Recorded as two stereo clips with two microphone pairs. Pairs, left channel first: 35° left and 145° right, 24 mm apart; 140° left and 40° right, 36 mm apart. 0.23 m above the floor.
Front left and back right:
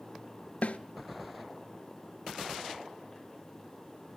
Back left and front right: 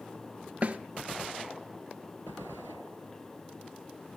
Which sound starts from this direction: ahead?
A snare drum, at 0.6 s.